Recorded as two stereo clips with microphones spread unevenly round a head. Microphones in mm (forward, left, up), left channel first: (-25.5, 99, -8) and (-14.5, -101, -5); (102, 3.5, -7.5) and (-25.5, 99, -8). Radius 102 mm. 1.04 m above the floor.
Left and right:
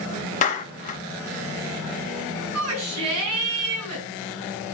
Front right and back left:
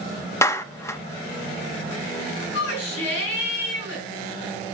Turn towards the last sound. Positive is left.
turn(degrees=-70)